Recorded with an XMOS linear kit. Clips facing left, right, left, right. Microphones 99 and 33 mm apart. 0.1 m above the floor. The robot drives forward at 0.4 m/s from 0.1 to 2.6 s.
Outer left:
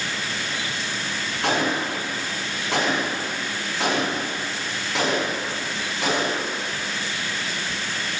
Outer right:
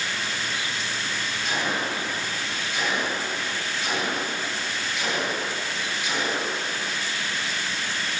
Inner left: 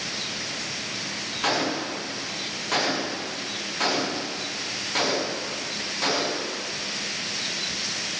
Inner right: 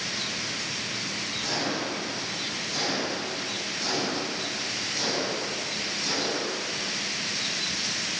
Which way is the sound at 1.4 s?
80° left.